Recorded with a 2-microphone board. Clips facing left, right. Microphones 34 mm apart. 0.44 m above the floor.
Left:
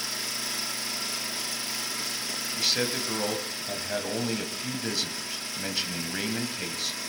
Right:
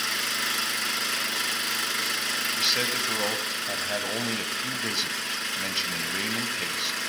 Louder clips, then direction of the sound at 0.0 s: Right 6 dB; 70° right (ahead or behind).